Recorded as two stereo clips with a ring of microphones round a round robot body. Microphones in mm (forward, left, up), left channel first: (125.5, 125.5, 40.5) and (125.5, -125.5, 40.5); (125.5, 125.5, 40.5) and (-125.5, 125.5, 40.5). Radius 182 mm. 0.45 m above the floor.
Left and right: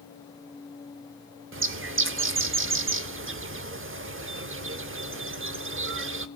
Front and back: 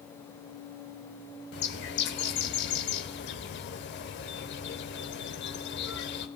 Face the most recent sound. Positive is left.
turn(degrees=-50)